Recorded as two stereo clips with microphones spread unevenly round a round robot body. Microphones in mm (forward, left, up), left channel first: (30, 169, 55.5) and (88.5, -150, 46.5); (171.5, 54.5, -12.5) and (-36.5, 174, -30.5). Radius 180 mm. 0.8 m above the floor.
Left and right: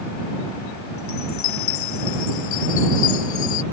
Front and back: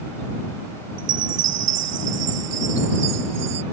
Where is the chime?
145° left.